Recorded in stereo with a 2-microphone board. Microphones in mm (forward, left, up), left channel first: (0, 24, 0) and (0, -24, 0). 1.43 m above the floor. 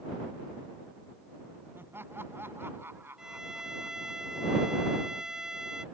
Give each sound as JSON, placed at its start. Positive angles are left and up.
{"t": 1.8, "sound": "laughter", "side_deg": -50}
{"t": 3.2, "sound": "a violin", "side_deg": -15}